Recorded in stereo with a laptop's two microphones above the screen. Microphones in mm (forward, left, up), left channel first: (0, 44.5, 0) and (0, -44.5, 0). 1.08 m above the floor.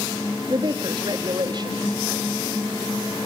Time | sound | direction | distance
0.5 | a woman speaking | 55° right (ahead or behind) | 2.5 m